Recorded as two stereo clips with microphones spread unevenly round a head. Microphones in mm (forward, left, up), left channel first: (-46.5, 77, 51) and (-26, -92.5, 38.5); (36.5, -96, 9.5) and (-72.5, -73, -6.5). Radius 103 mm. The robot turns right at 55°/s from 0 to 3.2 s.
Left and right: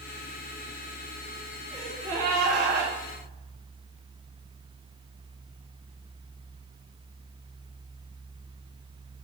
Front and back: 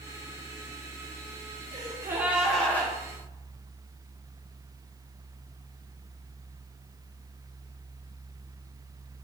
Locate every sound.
1.7 s a gasp: 145° right, 2 m; by 2.9 s 80° right, 2 m